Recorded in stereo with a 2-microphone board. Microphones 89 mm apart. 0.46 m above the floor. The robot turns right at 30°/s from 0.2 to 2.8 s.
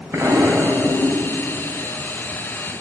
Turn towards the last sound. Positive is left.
turn(degrees=50)